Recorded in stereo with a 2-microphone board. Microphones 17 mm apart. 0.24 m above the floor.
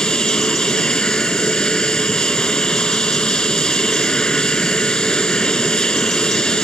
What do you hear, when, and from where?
0.0 s an aircraft: 60° left (ahead or behind)